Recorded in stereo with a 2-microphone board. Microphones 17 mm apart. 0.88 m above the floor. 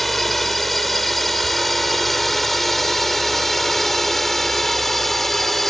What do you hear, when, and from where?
0.0 s a drone: 5° left (ahead or behind); by 5.7 s 15° left (ahead or behind)